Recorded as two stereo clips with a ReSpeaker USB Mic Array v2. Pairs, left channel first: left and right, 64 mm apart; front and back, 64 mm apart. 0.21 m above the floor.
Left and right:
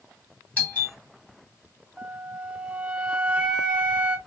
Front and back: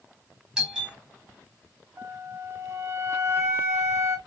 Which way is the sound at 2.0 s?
155° right.